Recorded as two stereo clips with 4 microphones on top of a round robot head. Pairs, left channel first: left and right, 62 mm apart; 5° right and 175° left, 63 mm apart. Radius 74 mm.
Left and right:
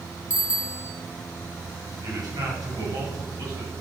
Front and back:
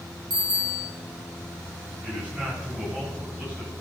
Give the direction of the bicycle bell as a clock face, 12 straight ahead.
5 o'clock.